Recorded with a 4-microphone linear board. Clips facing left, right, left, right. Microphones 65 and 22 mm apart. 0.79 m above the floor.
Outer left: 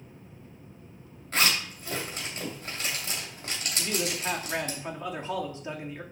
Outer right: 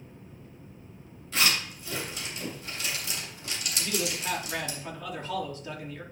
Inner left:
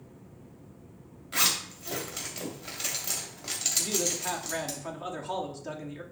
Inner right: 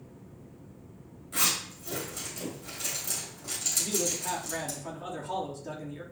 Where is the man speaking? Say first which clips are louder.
Outer left 1 dB, even; 25° left (ahead or behind), 1.5 m.